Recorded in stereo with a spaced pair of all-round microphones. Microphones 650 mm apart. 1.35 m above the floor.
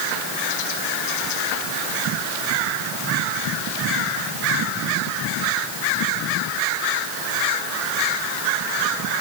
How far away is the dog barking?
No dog barking in this recording.